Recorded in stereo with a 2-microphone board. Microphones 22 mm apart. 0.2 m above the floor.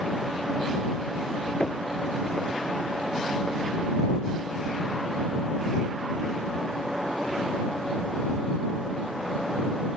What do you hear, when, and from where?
1.6 s knocking: 50° left (ahead or behind)